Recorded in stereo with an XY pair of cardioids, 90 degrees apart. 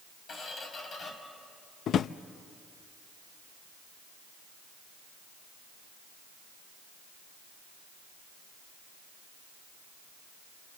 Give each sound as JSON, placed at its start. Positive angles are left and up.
{"t": 0.3, "sound": "a squeak", "azimuth_deg": 55, "distance_m": 4.0}
{"t": 1.9, "sound": "a drawer", "azimuth_deg": 70, "distance_m": 0.5}